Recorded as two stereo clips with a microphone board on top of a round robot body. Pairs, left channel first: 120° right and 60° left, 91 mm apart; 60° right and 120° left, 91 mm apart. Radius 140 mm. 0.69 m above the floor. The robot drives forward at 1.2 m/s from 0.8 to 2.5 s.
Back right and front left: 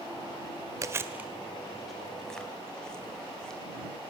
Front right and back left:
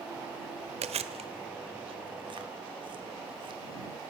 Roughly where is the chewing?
Behind left.